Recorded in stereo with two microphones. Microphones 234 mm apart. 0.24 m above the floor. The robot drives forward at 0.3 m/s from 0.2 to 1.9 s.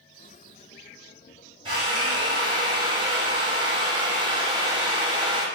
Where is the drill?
20° right (ahead or behind), 1.3 m.